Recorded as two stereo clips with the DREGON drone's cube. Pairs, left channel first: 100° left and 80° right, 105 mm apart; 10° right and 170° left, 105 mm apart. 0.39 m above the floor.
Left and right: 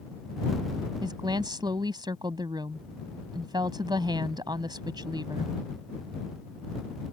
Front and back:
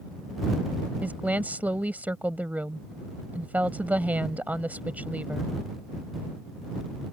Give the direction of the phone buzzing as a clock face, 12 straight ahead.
I don't hear a phone buzzing.